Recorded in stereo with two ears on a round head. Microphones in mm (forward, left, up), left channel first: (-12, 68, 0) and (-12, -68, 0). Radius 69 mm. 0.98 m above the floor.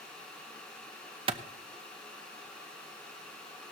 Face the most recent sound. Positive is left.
turn(degrees=-40)  # may be behind; listen again after turning